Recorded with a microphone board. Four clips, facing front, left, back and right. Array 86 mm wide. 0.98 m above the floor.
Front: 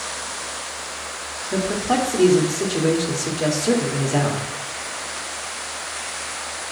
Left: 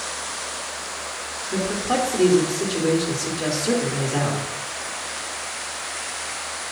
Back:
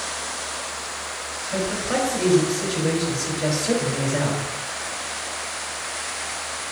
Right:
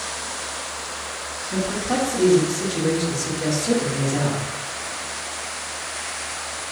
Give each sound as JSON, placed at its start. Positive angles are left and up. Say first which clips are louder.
{"t": 1.5, "sound": "a man speaking", "louder": "left 1 dB, front 3 dB", "azimuth_deg": 15, "distance_m": 1.6}